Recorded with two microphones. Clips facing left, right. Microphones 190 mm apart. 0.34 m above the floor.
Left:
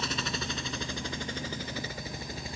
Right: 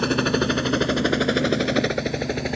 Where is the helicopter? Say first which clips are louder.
Right 15 dB; 65° right (ahead or behind); by 2.6 s 70° right (ahead or behind).